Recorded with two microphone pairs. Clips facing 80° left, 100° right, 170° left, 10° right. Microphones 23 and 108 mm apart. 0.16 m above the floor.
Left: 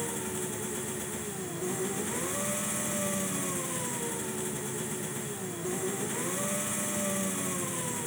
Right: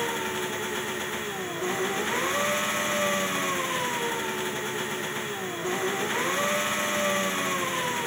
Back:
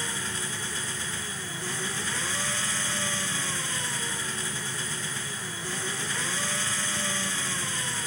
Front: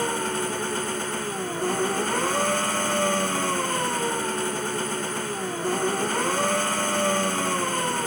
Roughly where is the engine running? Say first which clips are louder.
Right 7 dB, front 10 dB; ahead right.